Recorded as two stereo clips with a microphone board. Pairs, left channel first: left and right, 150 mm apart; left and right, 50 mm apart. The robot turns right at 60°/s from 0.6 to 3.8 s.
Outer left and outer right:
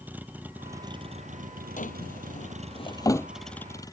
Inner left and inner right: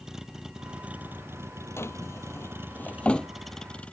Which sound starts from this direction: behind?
A vehicle, at 0.0 s.